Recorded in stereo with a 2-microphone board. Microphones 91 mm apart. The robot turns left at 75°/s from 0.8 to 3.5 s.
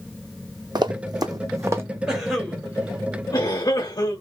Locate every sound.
0.8 s running footsteps: 55° right (ahead or behind), 1.0 m; by 1.8 s 25° right (ahead or behind), 1.3 m
2.1 s a cough: 10° right (ahead or behind), 2 m; by 4.2 s 50° left (ahead or behind), 2 m